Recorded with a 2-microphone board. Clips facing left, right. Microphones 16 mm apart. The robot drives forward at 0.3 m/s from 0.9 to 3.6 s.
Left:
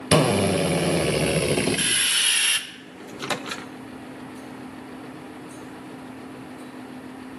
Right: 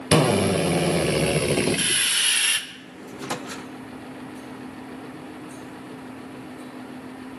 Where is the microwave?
60° left (ahead or behind), 0.5 m; by 3.7 s 45° left (ahead or behind), 0.6 m.